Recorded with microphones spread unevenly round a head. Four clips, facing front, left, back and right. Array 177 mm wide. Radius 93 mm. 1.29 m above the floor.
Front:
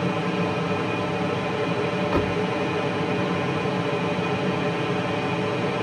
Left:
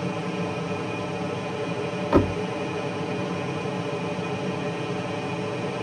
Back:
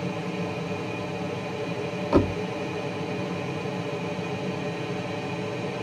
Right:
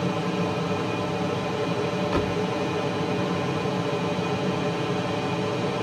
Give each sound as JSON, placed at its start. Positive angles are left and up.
{"t": 0.0, "sound": "an aircraft", "azimuth_deg": -25}
{"t": 2.1, "sound": "a door slam", "azimuth_deg": 125}